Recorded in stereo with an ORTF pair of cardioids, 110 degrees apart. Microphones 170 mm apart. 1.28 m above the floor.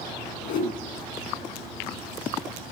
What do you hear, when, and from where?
0.4 s a whoosh: 65° left, 2.5 m